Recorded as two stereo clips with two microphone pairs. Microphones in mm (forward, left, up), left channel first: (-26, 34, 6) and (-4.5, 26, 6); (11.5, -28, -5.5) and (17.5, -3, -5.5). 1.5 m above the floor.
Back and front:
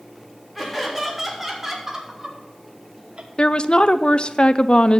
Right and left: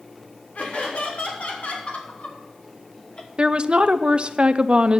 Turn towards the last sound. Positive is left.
turn(degrees=120)